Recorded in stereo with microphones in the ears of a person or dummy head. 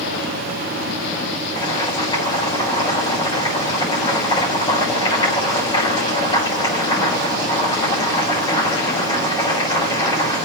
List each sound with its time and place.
1.6 s boiling: 20° left (ahead or behind), 6.5 m